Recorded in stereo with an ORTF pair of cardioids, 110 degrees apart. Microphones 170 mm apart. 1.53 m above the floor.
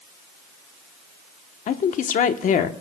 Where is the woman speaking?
50° left, 1.0 m.